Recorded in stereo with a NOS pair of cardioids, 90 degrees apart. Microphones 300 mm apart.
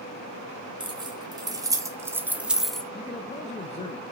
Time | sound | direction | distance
0.8 | keys jangling | 15° right | 2 m
2.9 | a man speaking | 20° left | 1.1 m